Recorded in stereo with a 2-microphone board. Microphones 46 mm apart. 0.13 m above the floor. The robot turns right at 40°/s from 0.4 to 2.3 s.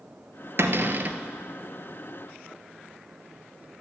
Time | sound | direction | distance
0.6 | a cupboard door | 60° right (ahead or behind) | 0.9 m